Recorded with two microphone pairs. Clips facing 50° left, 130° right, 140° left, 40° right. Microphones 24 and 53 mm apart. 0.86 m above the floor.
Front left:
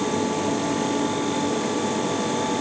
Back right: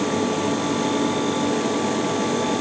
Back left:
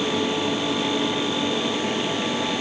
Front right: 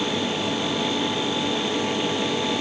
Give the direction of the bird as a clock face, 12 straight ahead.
I don't hear a bird.